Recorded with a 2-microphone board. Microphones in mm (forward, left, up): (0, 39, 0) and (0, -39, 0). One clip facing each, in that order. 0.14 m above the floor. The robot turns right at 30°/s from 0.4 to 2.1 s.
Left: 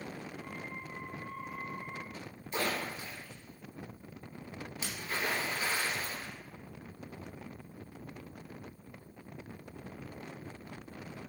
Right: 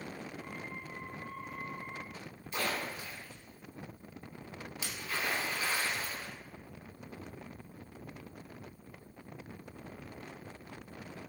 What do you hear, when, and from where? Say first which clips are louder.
2.5 s a splash: left 1 dB; 35° left (ahead or behind), 0.5 m